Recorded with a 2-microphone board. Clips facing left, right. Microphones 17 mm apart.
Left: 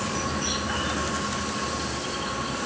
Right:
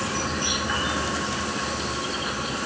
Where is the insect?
15° right (ahead or behind).